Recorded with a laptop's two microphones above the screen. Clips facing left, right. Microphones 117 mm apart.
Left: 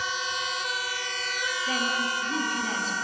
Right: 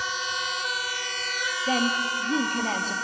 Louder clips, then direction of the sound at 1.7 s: Right 5 dB; 50° right (ahead or behind).